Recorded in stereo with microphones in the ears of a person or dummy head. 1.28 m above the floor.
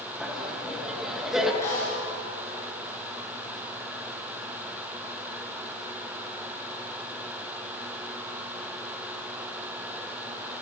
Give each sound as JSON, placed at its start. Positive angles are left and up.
{"t": 0.2, "sound": "laughter", "side_deg": 0, "distance_m": 1.3}
{"t": 1.6, "sound": "a snare drum", "side_deg": 15, "distance_m": 4.0}